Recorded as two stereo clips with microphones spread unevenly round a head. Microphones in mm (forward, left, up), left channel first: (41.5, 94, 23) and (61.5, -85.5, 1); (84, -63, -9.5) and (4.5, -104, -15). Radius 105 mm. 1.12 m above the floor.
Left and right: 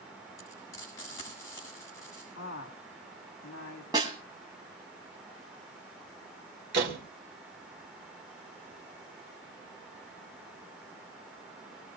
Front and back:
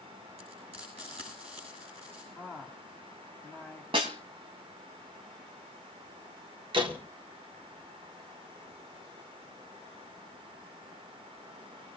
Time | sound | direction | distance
0.4 | frying | 170° left | 8 m
2.4 | a woman speaking | 125° left | 2.5 m
3.9 | a snare drum | 160° right | 1.7 m
6.7 | a door slam | 130° right | 2.5 m